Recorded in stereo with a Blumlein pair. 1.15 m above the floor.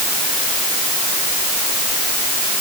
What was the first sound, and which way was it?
Only background noise.